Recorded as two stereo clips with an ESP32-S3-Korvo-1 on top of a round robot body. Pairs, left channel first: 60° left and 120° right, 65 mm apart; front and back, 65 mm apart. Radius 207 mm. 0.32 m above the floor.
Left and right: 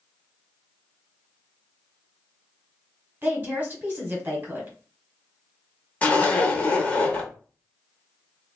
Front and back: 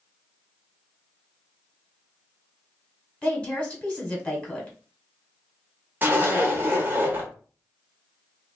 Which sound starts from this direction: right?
A woman speaking, at 3.2 s.